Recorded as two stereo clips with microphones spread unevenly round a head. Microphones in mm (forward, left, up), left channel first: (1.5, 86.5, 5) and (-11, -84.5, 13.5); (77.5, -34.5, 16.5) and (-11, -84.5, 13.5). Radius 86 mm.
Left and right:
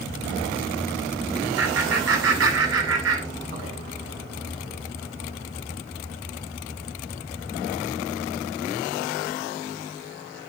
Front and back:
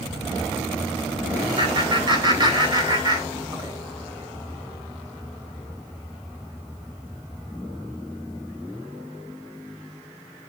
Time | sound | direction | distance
1.6 | laughter | 110° right | 6.5 m